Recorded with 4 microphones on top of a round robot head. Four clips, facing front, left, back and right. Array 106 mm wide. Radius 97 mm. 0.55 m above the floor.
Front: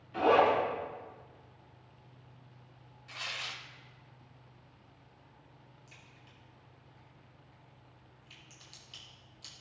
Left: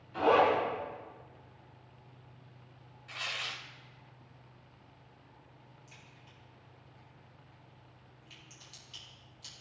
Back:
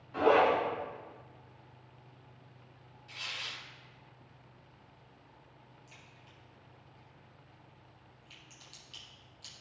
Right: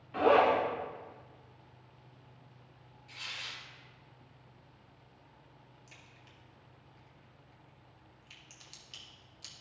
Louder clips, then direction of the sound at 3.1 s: Left 6 dB, front 2 dB; 65° left.